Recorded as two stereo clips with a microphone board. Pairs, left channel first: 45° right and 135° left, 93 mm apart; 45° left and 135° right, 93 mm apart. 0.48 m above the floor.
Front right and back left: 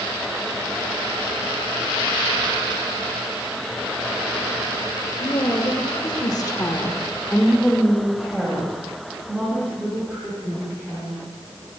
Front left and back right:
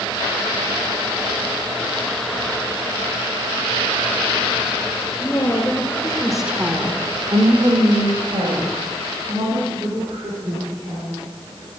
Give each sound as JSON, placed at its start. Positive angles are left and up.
{"t": 5.2, "sound": "a woman speaking", "azimuth_deg": -5, "distance_m": 2.0}